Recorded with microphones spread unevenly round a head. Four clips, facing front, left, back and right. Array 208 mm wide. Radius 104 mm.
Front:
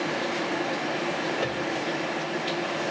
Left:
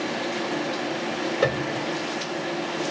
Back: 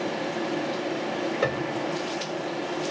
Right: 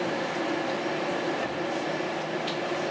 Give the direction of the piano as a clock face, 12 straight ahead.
8 o'clock.